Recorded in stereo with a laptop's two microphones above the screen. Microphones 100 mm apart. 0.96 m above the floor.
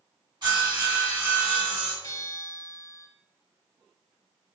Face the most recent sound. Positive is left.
turn(degrees=35)  # may be behind; listen again after turning